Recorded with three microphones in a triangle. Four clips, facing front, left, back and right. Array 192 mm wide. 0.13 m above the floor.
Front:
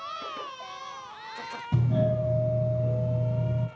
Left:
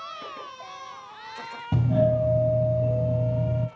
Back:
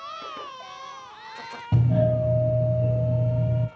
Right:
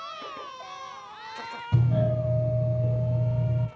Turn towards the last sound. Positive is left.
turn(degrees=130)